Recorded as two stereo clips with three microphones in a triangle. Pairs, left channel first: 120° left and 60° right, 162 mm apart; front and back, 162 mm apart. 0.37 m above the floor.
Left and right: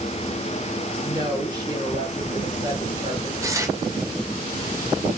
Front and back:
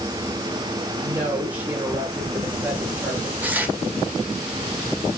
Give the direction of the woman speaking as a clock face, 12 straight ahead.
3 o'clock.